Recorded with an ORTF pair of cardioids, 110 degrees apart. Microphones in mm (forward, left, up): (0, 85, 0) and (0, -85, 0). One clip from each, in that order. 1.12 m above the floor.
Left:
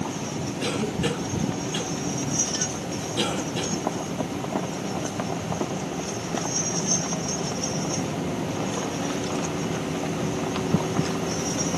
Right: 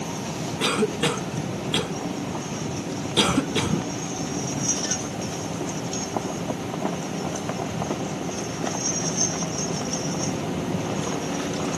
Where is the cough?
70° right, 1.4 m.